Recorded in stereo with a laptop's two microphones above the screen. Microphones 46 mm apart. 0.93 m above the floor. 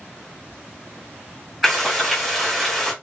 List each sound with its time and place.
1.6 s frying: 10° left (ahead or behind), 1.0 m